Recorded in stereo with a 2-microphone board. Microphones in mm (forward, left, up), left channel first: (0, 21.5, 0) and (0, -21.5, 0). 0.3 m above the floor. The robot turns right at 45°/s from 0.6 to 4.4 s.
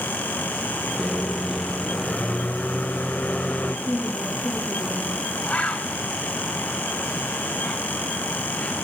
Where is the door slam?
I don't hear a door slam.